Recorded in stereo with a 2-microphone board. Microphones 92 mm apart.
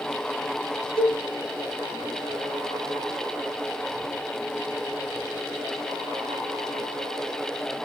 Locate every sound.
1.0 s a cowbell: 80° left, 1.8 m